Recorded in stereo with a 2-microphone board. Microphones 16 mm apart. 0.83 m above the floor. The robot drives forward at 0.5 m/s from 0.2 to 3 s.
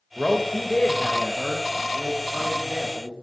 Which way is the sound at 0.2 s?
10° left (ahead or behind).